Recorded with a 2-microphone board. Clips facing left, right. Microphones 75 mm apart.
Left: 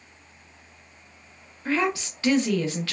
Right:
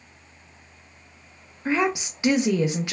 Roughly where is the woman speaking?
Centre.